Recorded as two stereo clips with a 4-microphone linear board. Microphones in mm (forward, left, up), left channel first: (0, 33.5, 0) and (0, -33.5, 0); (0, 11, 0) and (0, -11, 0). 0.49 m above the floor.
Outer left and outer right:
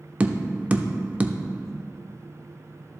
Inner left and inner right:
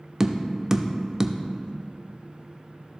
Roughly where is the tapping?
Right.